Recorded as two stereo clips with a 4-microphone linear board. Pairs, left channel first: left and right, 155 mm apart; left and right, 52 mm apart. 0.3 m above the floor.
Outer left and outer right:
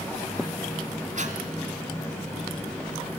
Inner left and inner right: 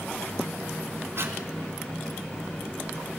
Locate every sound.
1.2 s breathing: 60° right (ahead or behind), 2 m